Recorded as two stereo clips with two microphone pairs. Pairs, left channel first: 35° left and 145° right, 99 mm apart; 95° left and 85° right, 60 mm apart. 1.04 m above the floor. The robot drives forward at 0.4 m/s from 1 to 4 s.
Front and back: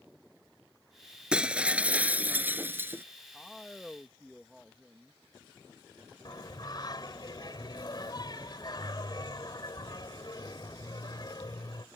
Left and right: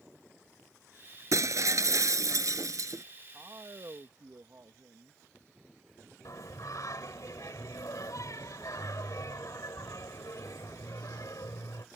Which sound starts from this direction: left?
Singing, at 6.2 s.